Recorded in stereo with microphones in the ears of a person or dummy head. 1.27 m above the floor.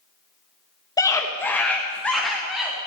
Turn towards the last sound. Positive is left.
turn(degrees=-5)  # may be behind; listen again after turning